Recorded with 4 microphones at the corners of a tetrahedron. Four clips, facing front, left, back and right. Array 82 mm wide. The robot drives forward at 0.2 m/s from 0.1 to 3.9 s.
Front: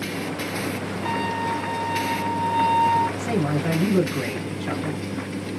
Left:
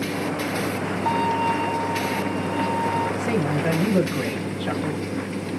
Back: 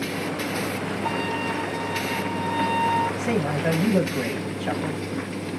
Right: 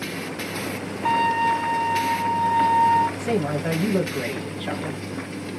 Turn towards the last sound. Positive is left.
turn(degrees=170)